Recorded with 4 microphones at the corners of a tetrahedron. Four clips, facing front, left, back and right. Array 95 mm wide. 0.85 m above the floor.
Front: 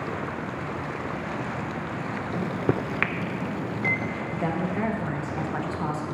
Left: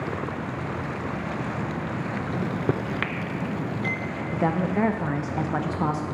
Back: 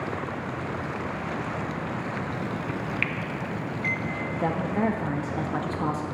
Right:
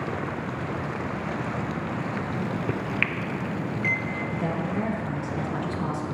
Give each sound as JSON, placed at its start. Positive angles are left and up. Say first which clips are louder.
{"t": 2.3, "sound": "a microwave", "louder": "left 2 dB, front 4 dB", "azimuth_deg": 25, "distance_m": 0.5}
{"t": 4.3, "sound": "a woman speaking", "louder": "left 7 dB, back 1 dB", "azimuth_deg": 110, "distance_m": 0.8}